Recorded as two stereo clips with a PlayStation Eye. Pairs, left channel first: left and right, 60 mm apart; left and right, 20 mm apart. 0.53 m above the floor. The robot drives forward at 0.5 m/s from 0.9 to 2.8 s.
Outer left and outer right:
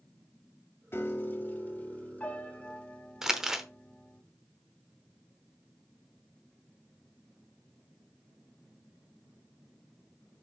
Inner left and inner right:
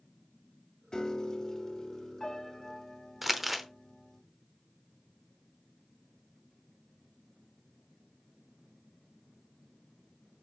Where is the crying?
No crying in this recording.